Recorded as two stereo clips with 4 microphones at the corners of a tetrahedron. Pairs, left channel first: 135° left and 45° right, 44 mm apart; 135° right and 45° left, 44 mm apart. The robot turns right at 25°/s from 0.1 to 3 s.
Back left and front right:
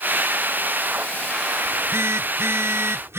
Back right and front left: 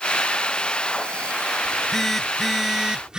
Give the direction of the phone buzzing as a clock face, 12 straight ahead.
2 o'clock.